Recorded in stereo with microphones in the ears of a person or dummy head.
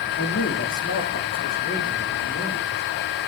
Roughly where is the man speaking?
Left.